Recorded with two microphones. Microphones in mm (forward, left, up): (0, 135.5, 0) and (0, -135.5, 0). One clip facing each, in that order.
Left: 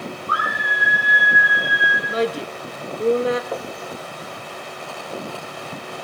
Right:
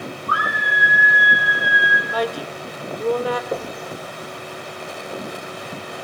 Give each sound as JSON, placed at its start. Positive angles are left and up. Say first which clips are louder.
{"t": 0.3, "sound": "a scream", "louder": "right 1 dB", "side_deg": -80, "distance_m": 4.5}
{"t": 2.1, "sound": "a woman speaking", "louder": "left 3 dB", "side_deg": 25, "distance_m": 0.8}
{"t": 3.5, "sound": "knocking", "louder": "right 2 dB", "side_deg": -40, "distance_m": 1.3}